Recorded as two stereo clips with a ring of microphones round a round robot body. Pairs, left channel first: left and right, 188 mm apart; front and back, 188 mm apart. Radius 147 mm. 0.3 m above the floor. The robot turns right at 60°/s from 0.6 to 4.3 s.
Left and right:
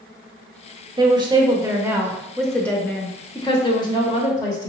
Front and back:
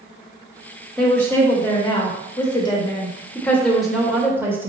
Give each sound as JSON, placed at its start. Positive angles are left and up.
{"t": 1.0, "sound": "a woman speaking", "azimuth_deg": -80, "distance_m": 0.9}